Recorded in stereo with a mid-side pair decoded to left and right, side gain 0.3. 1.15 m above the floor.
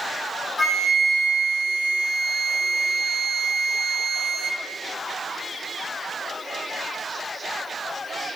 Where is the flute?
40° left, 1.2 m.